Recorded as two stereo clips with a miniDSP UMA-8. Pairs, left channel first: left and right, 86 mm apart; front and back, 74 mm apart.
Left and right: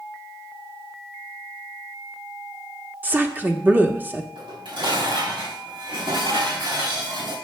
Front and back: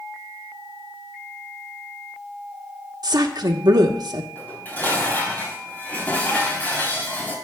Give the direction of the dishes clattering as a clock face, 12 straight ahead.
2 o'clock.